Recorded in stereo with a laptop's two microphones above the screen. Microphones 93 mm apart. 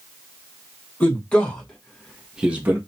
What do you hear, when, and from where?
1.0 s a man speaking: 15° left (ahead or behind), 1.3 m; by 2.8 s 25° right (ahead or behind), 0.5 m